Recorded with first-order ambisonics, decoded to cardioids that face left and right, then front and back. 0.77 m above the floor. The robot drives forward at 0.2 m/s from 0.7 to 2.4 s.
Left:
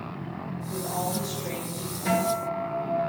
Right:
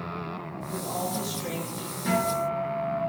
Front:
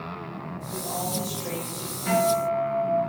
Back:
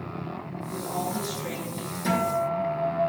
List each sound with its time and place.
0.7 s a woman speaking: 110° right, 1.2 m; by 1.9 s 125° right, 1.3 m
2.0 s a guitar: 175° left, 1.4 m